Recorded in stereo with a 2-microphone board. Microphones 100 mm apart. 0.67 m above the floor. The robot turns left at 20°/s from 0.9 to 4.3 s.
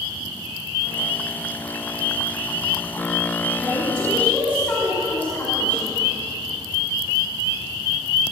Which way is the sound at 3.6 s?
Centre (ahead or behind).